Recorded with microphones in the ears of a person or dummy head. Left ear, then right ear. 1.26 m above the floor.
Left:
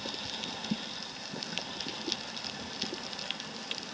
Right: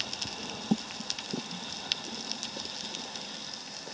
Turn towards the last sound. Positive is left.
No sound to turn to.